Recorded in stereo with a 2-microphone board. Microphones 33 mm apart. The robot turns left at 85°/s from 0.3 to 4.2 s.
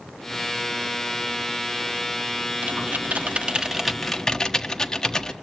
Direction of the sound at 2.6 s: 60° right (ahead or behind).